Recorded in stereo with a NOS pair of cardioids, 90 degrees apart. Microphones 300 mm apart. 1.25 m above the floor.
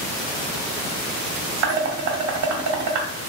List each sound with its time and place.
1.6 s dishes clattering: 60° right, 2 m